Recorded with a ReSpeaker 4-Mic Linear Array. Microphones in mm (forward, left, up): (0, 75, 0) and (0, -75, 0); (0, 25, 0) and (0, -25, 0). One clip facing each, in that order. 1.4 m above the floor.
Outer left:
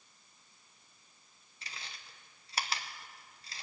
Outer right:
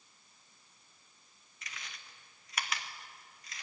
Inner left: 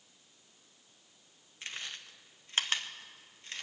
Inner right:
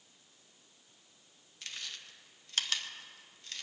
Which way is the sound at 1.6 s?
30° left (ahead or behind).